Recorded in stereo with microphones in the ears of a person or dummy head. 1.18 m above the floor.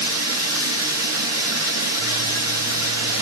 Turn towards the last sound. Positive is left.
turn(degrees=80)